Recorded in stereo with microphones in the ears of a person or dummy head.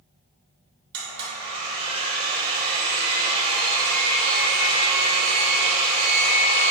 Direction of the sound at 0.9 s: 30° right (ahead or behind).